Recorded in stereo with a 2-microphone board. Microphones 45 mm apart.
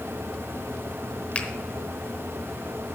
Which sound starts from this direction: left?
A finger snap, at 1.4 s.